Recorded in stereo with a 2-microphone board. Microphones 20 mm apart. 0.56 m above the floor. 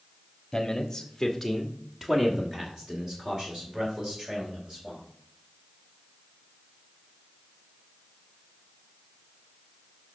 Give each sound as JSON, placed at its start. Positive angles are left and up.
{"t": 0.5, "sound": "a man speaking", "side_deg": 30, "distance_m": 1.2}